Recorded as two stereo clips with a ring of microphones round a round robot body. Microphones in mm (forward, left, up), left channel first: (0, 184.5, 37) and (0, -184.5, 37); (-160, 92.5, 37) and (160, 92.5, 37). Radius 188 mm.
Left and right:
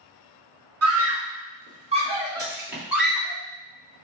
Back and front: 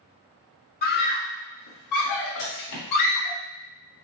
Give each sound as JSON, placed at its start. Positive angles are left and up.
{"t": 0.8, "sound": "a scream", "azimuth_deg": -125, "distance_m": 1.0}
{"t": 2.4, "sound": "a splash", "azimuth_deg": -155, "distance_m": 2.0}